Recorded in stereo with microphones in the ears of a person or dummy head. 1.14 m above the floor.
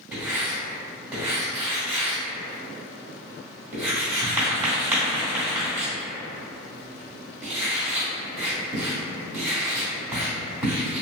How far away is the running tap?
No running tap in this recording.